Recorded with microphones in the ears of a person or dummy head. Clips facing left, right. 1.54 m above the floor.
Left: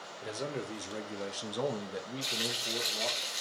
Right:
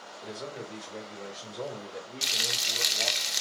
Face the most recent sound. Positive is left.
turn(degrees=-70)  # may be behind; listen again after turning